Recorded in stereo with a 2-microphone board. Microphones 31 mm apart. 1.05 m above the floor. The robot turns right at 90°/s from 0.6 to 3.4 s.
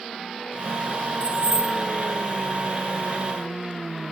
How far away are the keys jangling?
About 3.5 m.